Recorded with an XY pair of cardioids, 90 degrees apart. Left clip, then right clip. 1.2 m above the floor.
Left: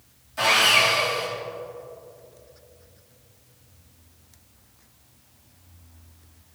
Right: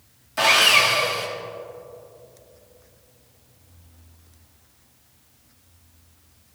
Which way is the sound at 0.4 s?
65° right.